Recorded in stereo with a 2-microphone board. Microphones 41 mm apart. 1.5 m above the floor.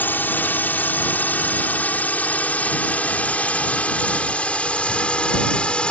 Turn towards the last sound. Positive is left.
turn(degrees=25)  # may be behind; listen again after turning